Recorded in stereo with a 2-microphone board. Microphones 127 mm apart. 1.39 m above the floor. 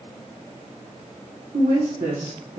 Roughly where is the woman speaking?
Right.